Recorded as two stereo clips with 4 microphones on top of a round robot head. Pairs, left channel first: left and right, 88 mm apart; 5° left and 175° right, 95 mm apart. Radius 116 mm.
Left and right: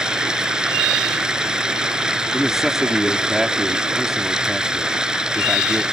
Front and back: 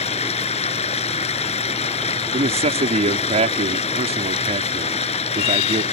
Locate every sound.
0.0 s running water: 10° right
2.3 s a man speaking: 175° right